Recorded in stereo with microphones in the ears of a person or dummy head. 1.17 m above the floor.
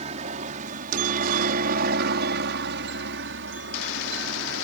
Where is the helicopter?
40° right (ahead or behind); by 4.7 s 60° right (ahead or behind).